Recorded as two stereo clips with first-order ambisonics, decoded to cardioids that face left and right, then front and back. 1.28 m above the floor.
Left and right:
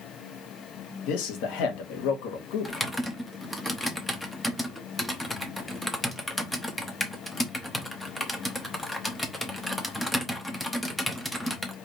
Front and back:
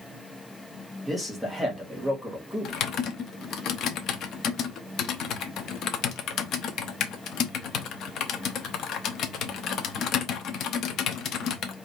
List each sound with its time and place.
1.0 s a man speaking: 90° left, 1.5 m
2.6 s typing on a keyboard: 5° left, 0.8 m